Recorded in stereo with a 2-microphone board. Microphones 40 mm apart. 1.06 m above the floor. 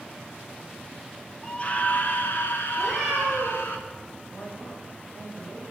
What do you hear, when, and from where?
1.4 s a scream: 25° left (ahead or behind), 0.8 m; by 3.8 s 80° left, 2.5 m
2.8 s a cat meowing: 5° left (ahead or behind), 7.5 m
4.3 s a man speaking: 55° left (ahead or behind), 6 m